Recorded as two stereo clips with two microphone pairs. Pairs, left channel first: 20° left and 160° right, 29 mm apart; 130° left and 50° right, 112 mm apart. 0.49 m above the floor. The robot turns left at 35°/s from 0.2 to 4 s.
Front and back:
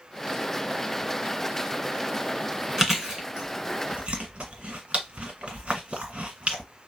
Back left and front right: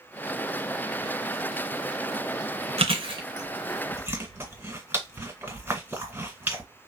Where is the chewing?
80° right, 1.4 m; by 6.6 s 125° right, 1.4 m.